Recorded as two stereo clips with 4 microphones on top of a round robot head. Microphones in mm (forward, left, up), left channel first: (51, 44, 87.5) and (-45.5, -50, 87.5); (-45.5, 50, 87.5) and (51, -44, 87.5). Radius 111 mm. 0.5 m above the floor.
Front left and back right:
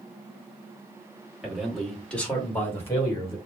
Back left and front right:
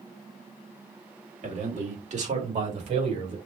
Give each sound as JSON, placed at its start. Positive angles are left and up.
{"t": 1.4, "sound": "a man speaking", "azimuth_deg": -50, "distance_m": 2.0}